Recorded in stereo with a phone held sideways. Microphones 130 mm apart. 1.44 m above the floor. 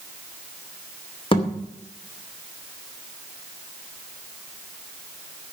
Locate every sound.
1.3 s a thud: 45° left (ahead or behind), 2.5 m